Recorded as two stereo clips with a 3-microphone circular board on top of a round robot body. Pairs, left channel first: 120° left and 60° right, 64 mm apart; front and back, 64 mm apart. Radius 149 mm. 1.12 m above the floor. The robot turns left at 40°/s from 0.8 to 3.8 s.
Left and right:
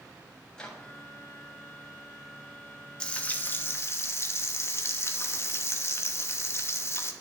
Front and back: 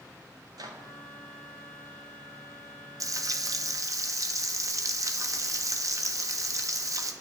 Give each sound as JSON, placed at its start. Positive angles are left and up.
{"t": 0.5, "sound": "a microwave", "azimuth_deg": -160, "distance_m": 1.6}
{"t": 3.0, "sound": "frying", "azimuth_deg": -170, "distance_m": 1.0}